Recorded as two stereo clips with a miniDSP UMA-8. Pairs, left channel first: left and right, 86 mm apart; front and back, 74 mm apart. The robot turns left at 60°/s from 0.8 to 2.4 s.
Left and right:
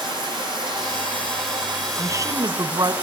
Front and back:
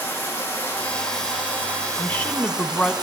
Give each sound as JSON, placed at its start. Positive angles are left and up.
{"t": 0.0, "sound": "running water", "azimuth_deg": -65, "distance_m": 9.5}
{"t": 2.0, "sound": "a woman speaking", "azimuth_deg": -55, "distance_m": 1.4}